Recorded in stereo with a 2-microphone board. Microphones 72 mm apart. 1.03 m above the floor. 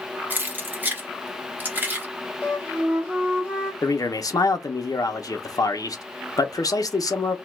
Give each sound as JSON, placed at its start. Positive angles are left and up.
{"t": 0.3, "sound": "keys jangling", "side_deg": -25, "distance_m": 0.8}
{"t": 2.4, "sound": "a flute", "side_deg": -25, "distance_m": 1.0}
{"t": 3.8, "sound": "a man speaking", "side_deg": 60, "distance_m": 0.6}